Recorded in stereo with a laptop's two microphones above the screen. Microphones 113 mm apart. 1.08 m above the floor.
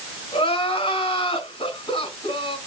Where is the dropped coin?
I don't hear a dropped coin.